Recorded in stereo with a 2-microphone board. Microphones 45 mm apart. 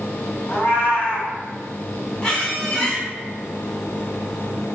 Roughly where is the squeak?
Left.